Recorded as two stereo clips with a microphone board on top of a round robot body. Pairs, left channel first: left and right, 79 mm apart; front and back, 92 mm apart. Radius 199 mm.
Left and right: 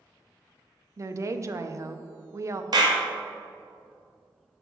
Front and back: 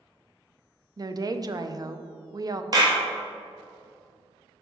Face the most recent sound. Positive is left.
turn(degrees=-130)